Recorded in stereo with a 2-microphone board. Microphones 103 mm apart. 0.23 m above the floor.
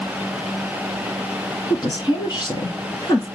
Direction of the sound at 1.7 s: 45° left (ahead or behind).